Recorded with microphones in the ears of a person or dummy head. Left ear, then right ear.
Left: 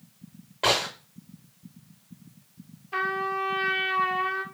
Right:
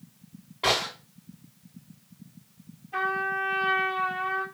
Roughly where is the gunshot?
Left.